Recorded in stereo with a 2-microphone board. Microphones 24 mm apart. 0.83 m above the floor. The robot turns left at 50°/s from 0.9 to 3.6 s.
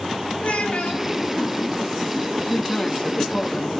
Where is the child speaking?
80° left, 3.5 m; by 1.0 s 70° left (ahead or behind), 3.5 m.